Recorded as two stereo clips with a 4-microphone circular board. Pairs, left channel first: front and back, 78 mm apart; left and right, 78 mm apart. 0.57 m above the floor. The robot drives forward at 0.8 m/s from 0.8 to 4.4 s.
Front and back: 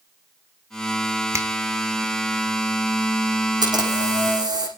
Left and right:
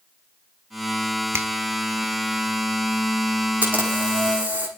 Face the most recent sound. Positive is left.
turn(degrees=-160)